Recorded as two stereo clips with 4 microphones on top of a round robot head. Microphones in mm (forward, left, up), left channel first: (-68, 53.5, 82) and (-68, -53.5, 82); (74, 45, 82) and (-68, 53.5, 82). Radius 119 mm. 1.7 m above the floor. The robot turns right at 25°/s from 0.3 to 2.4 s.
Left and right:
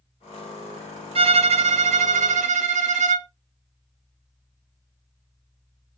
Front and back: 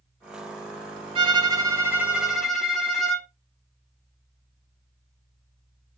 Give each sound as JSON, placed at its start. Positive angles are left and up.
{"t": 1.1, "sound": "a violin", "azimuth_deg": -125, "distance_m": 0.5}